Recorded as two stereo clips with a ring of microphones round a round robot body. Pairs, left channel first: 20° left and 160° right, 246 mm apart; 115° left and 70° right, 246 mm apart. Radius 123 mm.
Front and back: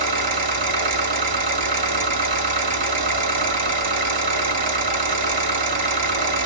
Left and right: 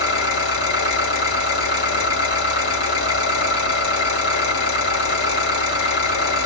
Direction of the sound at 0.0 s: 145° left.